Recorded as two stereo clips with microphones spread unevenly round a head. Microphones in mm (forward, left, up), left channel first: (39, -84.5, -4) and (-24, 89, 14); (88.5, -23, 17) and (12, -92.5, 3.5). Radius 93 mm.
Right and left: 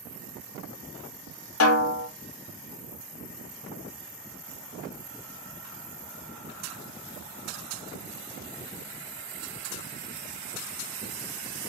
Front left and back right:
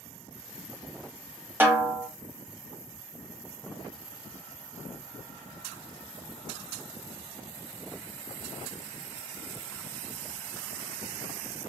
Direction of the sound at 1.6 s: 65° right.